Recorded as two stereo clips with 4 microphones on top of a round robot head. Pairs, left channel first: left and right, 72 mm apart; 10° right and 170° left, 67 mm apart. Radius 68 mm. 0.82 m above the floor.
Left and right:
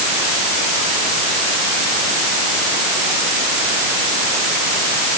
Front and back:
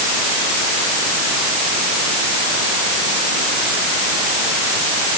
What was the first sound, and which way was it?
Only background noise.